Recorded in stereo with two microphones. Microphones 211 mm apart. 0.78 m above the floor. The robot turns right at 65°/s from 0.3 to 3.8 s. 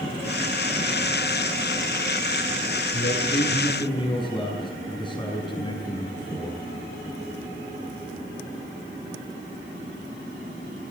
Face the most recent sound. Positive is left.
turn(degrees=160)